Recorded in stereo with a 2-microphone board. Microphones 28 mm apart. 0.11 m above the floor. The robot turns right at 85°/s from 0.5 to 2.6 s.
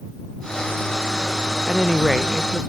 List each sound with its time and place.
1.7 s a woman speaking: 145° left; by 2.6 s 135° right